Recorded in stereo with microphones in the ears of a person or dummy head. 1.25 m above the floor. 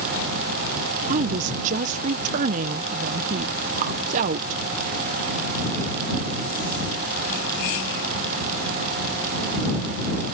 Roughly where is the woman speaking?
Right.